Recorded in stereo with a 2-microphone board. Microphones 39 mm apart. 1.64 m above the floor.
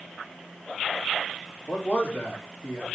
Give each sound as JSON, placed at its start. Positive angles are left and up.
{"t": 1.7, "sound": "a man speaking", "side_deg": 30, "distance_m": 3.5}